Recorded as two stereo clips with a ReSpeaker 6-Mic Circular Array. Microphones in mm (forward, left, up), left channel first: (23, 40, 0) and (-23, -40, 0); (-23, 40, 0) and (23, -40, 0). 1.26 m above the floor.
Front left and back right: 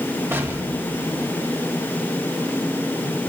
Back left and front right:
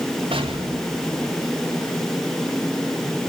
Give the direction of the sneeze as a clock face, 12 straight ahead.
I don't hear a sneeze.